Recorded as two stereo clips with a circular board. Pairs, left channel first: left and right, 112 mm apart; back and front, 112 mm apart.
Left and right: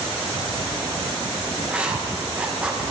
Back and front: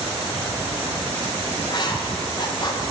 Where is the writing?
165° right, 0.9 m.